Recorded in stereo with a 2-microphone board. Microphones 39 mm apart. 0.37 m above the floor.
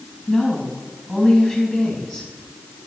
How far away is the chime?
No chime in this recording.